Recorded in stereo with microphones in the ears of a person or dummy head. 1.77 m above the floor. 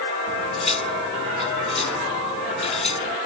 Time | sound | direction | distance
0.3 | cutlery clinking | 35° left (ahead or behind) | ?